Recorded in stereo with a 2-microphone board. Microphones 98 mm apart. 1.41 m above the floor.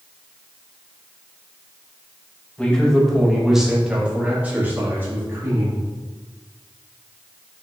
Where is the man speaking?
10° left (ahead or behind), 1.6 m; by 5.8 s 25° right (ahead or behind), 2.5 m.